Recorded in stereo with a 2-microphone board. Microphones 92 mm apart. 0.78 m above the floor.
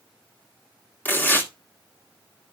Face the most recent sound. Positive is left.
turn(degrees=20)  # may be behind; listen again after turning